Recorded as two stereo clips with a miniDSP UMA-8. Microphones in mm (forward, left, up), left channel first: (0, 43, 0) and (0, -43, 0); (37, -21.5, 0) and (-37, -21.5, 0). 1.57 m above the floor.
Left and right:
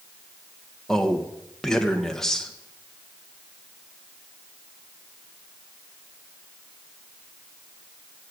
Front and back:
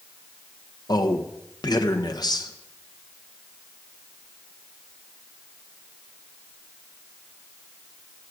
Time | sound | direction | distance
0.9 | a man speaking | 5° left | 1.4 m